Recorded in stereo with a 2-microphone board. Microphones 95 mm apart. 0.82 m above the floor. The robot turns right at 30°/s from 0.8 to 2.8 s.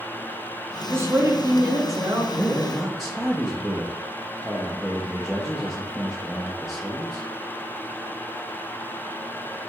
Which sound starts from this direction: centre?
A man speaking, at 2.4 s.